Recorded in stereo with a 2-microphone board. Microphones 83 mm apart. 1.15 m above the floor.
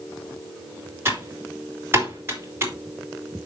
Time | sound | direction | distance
1.1 | typing on a keyboard | 30° right (ahead or behind) | 2.5 m